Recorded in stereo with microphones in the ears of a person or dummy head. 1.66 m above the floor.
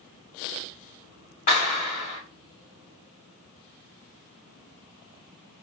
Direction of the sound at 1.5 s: 35° left (ahead or behind).